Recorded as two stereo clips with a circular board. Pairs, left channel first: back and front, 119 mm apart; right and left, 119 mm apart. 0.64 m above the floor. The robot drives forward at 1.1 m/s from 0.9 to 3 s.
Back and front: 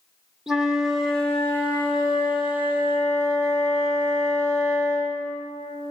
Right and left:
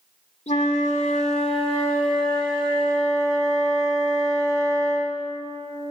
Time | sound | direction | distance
0.5 | a flute | 90° right | 1.2 m